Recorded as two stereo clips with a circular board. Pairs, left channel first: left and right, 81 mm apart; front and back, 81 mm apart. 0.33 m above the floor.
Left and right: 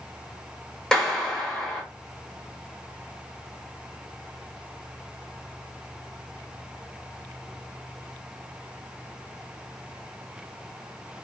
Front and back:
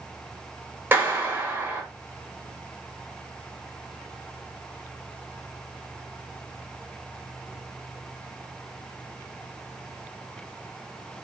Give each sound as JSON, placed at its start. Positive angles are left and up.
{"t": 0.9, "sound": "a clap", "azimuth_deg": 165, "distance_m": 0.9}